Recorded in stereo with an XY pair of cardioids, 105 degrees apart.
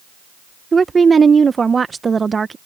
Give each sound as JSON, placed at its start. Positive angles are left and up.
{"t": 0.7, "sound": "a woman speaking", "azimuth_deg": -30}